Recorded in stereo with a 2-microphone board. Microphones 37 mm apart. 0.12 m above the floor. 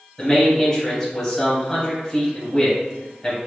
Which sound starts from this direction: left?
A man speaking, at 0.2 s.